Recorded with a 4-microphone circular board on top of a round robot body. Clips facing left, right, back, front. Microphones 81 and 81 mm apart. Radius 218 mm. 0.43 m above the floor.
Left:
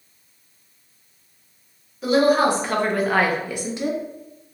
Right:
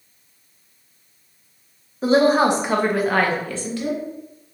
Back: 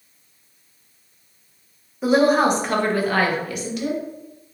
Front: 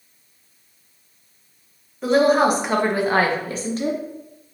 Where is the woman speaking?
105° right, 1.0 m; by 4.0 s 35° left, 1.1 m.